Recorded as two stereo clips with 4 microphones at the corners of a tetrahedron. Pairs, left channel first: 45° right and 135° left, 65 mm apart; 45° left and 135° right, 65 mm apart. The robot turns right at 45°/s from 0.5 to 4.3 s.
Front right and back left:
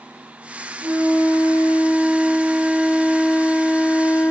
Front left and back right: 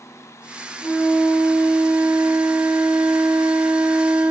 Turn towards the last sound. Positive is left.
turn(degrees=-75)